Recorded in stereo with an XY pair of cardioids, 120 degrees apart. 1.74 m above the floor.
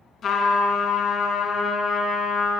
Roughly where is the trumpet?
Ahead left.